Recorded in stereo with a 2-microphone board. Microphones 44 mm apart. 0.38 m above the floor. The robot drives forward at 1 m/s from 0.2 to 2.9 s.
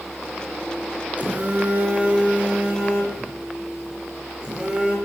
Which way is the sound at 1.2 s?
35° right (ahead or behind).